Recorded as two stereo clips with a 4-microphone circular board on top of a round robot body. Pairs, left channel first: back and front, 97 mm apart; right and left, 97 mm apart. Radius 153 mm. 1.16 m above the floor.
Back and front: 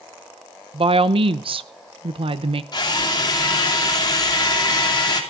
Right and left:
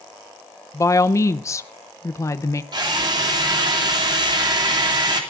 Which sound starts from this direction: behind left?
A drill, at 2.7 s.